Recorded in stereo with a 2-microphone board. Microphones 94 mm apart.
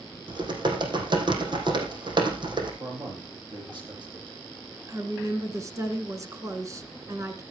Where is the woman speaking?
35° right (ahead or behind), 2.5 m.